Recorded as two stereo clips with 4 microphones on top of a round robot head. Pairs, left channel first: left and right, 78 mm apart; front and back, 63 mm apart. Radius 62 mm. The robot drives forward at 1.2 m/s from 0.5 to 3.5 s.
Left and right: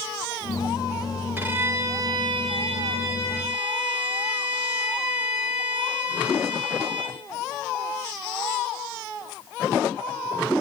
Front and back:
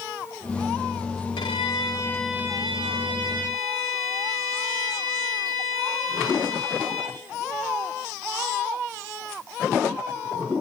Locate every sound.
1.4 s a violin: 25° right, 1.3 m; by 7.2 s 160° right, 1.7 m